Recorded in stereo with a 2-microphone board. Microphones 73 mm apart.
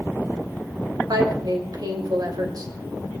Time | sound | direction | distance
1.1 | a woman speaking | 65° right (ahead or behind) | 3 m